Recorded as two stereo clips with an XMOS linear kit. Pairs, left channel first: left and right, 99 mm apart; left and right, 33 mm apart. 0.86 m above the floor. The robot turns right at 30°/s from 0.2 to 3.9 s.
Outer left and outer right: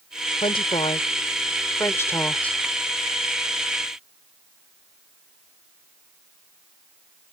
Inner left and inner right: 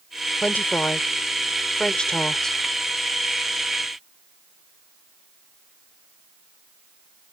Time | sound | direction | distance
0.4 | a woman speaking | 75° left (ahead or behind) | ?